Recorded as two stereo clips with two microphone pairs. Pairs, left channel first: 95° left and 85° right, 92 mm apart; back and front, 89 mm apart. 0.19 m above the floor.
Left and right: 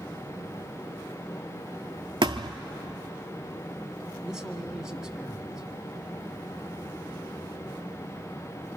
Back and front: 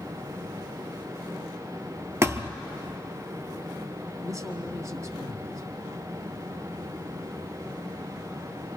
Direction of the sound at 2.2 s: 55° right.